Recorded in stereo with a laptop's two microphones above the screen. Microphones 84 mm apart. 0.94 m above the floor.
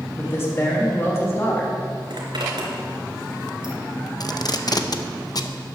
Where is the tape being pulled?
50° left (ahead or behind), 0.7 m.